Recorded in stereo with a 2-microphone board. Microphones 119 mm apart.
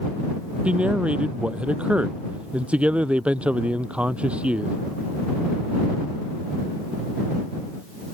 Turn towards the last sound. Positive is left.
turn(degrees=-10)  # may be behind; listen again after turning